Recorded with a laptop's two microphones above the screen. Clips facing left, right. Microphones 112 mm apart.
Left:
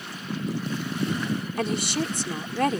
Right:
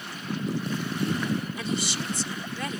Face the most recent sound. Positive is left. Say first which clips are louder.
# left 4 dB
turn(degrees=55)  # may be behind; listen again after turning